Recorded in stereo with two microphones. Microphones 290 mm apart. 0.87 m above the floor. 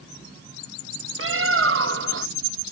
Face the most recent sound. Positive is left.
turn(degrees=-45)  # may be behind; listen again after turning